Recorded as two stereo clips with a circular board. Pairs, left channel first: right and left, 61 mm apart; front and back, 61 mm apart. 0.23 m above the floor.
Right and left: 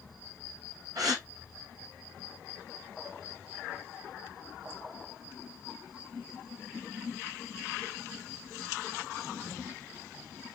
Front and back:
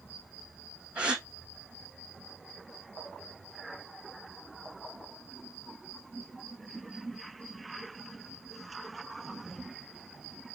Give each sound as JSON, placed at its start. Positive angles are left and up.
{"t": 0.9, "sound": "a gasp", "azimuth_deg": 105, "distance_m": 1.9}